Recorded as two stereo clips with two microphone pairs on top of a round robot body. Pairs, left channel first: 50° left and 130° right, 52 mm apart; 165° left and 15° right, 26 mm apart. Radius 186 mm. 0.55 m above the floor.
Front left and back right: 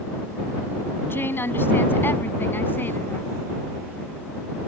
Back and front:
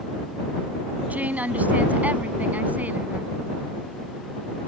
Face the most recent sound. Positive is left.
turn(degrees=0)